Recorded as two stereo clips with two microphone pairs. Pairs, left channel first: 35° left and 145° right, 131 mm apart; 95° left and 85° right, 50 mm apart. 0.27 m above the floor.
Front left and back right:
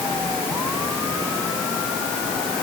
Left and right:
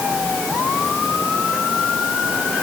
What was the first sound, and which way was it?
Only background noise.